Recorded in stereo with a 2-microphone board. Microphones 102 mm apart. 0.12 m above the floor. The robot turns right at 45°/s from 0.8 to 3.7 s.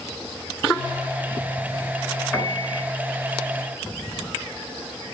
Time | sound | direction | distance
2.3 | a piano | 15° left (ahead or behind) | 1.2 m